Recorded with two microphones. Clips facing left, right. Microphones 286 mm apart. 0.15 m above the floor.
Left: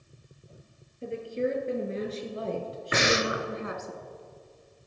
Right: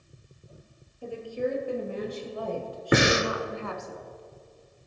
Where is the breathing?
65° right (ahead or behind), 0.9 m.